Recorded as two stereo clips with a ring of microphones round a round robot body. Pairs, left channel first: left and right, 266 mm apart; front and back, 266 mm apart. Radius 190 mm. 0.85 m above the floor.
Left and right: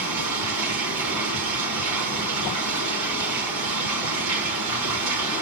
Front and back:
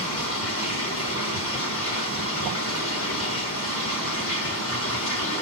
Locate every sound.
0.0 s running water: 55° right, 0.9 m